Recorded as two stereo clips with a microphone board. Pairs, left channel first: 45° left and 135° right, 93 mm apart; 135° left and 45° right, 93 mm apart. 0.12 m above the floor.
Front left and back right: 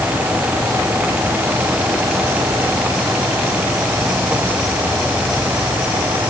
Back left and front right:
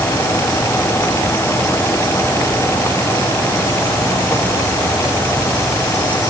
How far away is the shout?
I don't hear a shout.